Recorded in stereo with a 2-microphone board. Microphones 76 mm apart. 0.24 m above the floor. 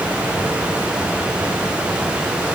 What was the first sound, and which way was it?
Only background noise.